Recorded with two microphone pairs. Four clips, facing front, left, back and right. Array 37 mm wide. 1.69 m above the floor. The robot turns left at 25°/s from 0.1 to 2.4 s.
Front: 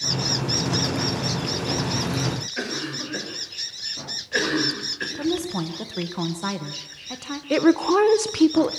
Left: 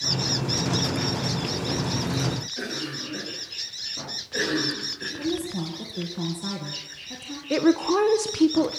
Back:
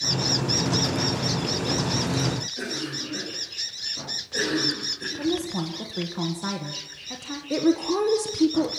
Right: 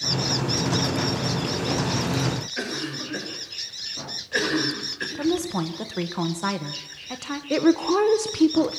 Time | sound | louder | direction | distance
2.6 | a cough | right 2 dB, front 2 dB | 35° right | 7 m
5.2 | a woman speaking | right 5 dB, front 1 dB | 75° right | 1.8 m
7.5 | a woman speaking | right 1 dB, front 5 dB | straight ahead | 0.8 m